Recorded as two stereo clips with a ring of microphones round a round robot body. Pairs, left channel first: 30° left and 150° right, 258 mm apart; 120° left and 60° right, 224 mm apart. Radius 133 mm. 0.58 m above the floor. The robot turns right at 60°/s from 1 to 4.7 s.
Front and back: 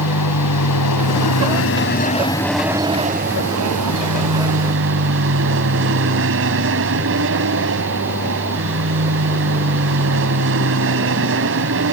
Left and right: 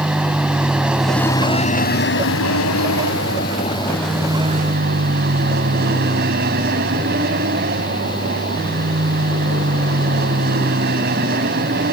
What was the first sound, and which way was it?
An aircraft, 25° left.